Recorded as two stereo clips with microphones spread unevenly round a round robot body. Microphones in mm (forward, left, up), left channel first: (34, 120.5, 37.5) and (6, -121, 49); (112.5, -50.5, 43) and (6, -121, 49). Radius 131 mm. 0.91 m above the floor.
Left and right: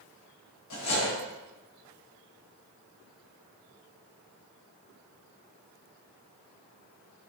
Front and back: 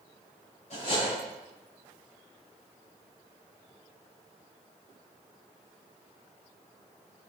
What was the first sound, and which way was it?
Cutlery clinking, 90° left.